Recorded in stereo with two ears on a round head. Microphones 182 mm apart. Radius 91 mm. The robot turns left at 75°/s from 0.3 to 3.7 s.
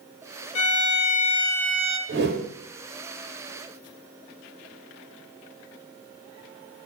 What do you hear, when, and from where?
0.6 s a violin: 85° left, 0.9 m; by 2.0 s 25° right, 0.9 m
2.1 s a whoosh: 60° right (ahead or behind), 0.9 m; by 2.5 s 35° right (ahead or behind), 0.9 m